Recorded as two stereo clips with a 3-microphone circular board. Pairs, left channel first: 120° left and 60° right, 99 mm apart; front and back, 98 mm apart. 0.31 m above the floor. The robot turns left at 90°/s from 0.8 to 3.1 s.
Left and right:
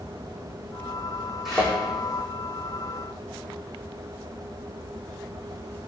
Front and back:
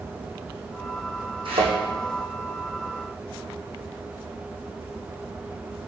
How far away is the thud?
About 4 m.